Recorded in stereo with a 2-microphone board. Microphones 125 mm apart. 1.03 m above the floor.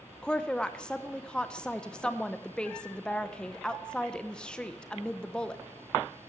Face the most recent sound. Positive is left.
turn(degrees=5)  # may be behind; listen again after turning